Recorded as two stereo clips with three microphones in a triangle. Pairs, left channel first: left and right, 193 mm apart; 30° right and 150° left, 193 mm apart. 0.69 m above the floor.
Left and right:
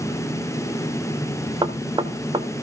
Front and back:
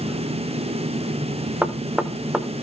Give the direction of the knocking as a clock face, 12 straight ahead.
4 o'clock.